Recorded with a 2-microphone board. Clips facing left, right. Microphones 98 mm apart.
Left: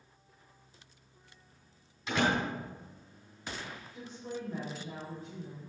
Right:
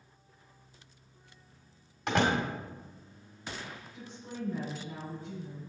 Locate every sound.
2.1 s a door slam: 70° right (ahead or behind), 1.8 m
3.9 s a woman speaking: 40° left (ahead or behind), 3.5 m